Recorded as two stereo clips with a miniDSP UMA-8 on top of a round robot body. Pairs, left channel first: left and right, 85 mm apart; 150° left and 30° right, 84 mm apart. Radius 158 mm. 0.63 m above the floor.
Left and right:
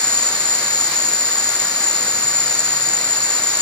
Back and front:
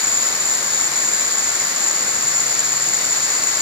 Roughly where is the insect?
Ahead left.